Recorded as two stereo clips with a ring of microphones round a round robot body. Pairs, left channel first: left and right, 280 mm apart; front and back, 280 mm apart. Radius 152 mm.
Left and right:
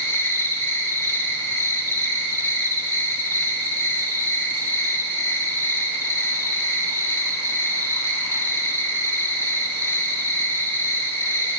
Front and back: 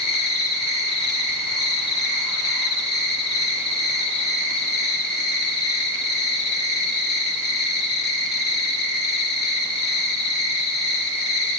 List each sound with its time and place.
0.0 s an insect: 15° left, 2.5 m